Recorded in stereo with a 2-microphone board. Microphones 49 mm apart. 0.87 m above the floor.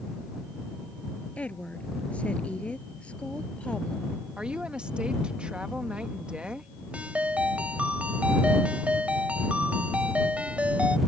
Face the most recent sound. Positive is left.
turn(degrees=-25)  # may be behind; listen again after turning